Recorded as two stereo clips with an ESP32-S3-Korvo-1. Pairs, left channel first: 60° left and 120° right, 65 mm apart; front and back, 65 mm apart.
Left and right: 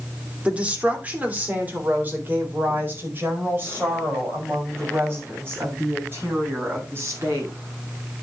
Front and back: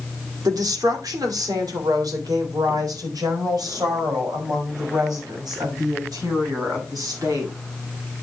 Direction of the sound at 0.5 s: 170° left.